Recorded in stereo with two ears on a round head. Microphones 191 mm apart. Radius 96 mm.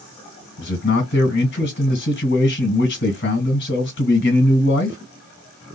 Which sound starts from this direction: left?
A man speaking, at 0.6 s.